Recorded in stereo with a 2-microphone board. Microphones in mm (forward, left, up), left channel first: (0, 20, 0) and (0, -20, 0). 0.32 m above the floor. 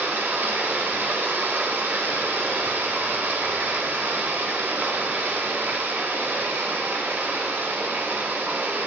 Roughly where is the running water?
Right.